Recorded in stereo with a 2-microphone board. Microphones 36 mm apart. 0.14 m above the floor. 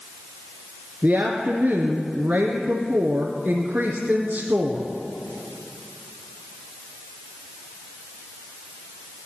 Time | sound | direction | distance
1.0 | a woman speaking | 45° right (ahead or behind) | 1.8 m